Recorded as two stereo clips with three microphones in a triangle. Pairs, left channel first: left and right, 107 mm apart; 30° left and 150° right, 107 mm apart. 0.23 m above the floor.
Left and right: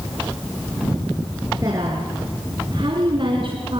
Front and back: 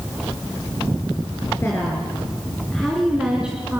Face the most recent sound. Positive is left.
turn(degrees=-80)